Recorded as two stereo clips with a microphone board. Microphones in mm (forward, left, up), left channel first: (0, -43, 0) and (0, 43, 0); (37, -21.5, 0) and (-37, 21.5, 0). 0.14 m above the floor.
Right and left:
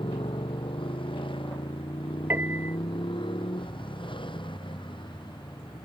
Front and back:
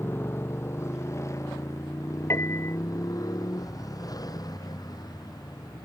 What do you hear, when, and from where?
0.0 s a motorcycle: 90° right; by 5.9 s 70° right
2.3 s a piano: 25° left